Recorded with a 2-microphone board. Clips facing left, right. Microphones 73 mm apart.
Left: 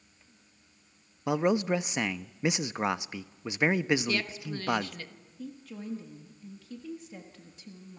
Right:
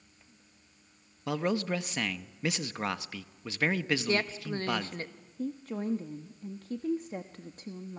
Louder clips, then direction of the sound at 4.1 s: Right 2 dB; 35° right (ahead or behind).